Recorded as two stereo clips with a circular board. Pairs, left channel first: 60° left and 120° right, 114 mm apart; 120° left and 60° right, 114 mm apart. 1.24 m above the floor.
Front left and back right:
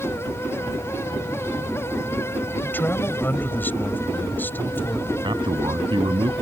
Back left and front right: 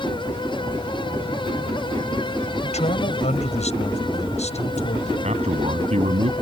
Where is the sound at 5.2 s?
75° right.